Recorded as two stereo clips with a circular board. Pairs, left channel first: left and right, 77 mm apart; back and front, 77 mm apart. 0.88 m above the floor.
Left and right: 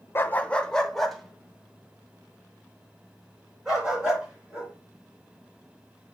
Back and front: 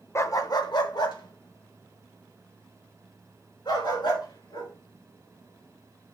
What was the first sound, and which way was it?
A dog barking, 140° left.